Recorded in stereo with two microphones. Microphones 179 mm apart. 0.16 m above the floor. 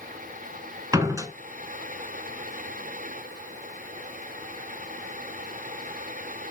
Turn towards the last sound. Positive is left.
turn(degrees=-20)  # may be behind; listen again after turning